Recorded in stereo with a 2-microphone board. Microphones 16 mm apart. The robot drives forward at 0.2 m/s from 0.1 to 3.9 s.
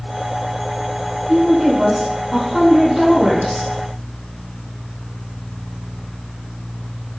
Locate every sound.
1.3 s a woman speaking: 30° right (ahead or behind), 1.5 m; by 3.7 s 25° right (ahead or behind), 1.9 m